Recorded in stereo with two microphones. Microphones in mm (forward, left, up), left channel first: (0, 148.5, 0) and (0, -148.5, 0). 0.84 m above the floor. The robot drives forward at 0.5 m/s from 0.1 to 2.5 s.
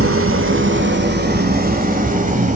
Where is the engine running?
45° right (ahead or behind), 1.4 m; by 2.6 s 25° right (ahead or behind), 2.5 m.